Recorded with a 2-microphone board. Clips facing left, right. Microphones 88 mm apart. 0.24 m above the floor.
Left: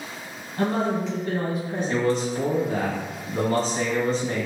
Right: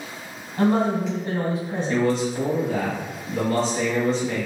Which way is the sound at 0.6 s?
30° right (ahead or behind).